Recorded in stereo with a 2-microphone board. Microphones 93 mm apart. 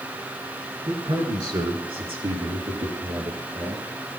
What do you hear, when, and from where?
0.8 s a man speaking: 55° right (ahead or behind), 7.5 m; by 3.8 s 85° right, 6 m